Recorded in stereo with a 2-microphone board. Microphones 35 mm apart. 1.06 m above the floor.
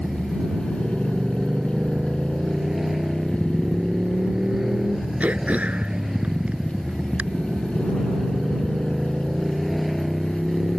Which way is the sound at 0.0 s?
10° right (ahead or behind).